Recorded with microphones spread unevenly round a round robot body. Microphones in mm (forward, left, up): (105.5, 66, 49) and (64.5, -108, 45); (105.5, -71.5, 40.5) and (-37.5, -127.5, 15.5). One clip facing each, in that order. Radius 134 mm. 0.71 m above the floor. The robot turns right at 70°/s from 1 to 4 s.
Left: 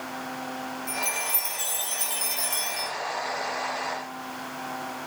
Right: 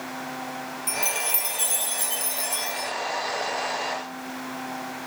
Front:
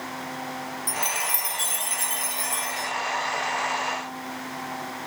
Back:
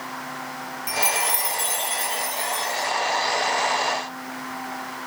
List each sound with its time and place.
0.9 s a chime: 90° right, 1.0 m; by 2.9 s 45° left, 1.0 m